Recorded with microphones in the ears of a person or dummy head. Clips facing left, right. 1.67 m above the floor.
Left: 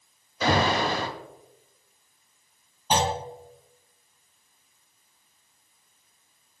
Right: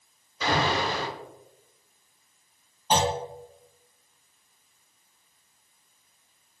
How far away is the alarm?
About 1.3 m.